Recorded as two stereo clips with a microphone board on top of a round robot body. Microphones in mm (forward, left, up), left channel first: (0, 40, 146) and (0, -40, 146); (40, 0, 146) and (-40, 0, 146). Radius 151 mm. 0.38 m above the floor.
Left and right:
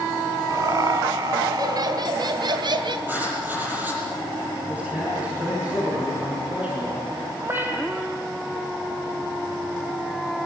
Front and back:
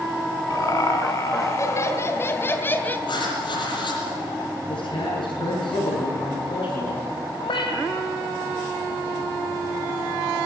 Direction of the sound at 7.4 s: 25° right.